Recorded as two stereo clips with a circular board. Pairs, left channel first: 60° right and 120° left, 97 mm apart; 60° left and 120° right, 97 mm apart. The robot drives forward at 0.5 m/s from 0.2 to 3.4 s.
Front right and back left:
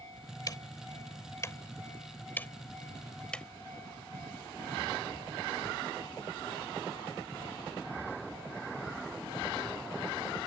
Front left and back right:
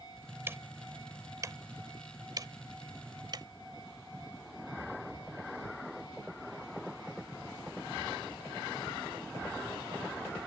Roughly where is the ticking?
Right.